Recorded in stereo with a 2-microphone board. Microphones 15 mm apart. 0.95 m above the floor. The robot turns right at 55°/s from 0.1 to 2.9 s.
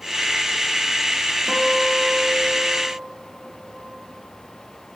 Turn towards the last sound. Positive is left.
turn(degrees=-105)